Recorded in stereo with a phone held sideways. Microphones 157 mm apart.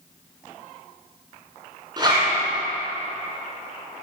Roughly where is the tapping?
I don't hear tapping.